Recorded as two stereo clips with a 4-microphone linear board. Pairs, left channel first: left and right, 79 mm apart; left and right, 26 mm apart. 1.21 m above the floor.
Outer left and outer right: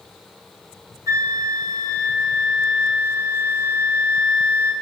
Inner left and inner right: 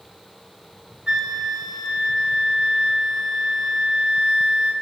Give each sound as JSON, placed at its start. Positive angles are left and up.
{"t": 1.1, "sound": "a flute", "side_deg": -45, "distance_m": 0.9}